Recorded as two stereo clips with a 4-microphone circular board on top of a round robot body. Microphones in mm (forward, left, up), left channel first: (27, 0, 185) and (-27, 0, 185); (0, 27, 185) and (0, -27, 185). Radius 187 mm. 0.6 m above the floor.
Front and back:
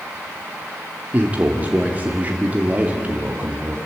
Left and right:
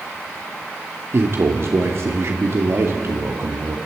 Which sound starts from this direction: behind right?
A man speaking, at 1.1 s.